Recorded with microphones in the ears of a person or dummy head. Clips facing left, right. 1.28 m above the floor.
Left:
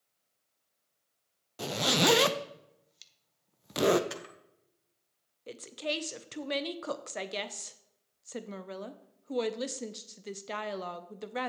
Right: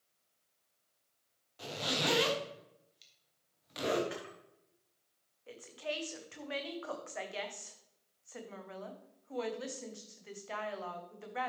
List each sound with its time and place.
1.6 s a zipper: 70° left (ahead or behind), 0.7 m
4.1 s a camera shutter: 60° left (ahead or behind), 1.8 m
5.5 s a woman speaking: 50° left (ahead or behind), 0.8 m